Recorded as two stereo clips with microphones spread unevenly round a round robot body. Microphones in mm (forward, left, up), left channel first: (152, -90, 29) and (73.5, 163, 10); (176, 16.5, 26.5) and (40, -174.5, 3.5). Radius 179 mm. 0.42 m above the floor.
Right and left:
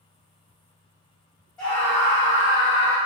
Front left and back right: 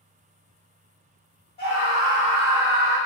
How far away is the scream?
About 1.7 m.